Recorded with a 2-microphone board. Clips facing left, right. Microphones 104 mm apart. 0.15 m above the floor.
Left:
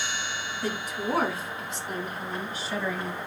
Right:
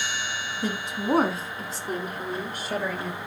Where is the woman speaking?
20° right (ahead or behind), 1.0 m; by 3.2 s 55° right (ahead or behind), 1.9 m.